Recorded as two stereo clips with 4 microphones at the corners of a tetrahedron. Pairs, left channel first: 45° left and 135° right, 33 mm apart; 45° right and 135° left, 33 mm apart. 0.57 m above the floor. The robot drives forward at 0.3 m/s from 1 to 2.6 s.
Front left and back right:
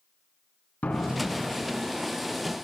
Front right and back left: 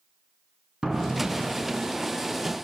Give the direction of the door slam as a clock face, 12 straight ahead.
10 o'clock.